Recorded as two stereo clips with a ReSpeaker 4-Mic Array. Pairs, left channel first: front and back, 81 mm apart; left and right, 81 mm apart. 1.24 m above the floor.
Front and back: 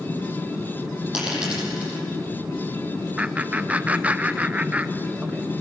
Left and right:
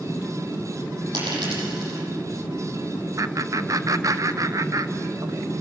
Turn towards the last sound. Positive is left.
turn(degrees=-115)